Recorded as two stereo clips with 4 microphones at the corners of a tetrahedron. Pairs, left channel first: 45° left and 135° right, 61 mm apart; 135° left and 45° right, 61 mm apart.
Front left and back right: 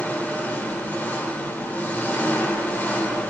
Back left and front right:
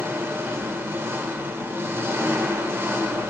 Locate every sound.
0.0 s an engine running: 5° right, 1.0 m